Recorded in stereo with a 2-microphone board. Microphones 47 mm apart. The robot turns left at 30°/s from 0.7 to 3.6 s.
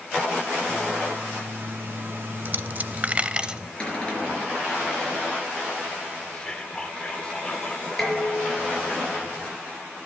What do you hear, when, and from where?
2.5 s a dropped coin: 50° right (ahead or behind), 0.5 m; by 3.7 s 15° right (ahead or behind), 0.5 m
3.8 s a cupboard door: 20° left (ahead or behind), 4 m
6.3 s whispering: 20° left (ahead or behind), 0.7 m
8.0 s dishes clattering: 10° left (ahead or behind), 5 m